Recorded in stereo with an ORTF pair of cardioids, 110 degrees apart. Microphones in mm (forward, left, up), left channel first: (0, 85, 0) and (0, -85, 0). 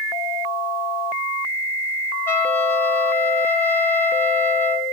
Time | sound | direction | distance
2.3 | a trumpet | 15° left | 0.8 m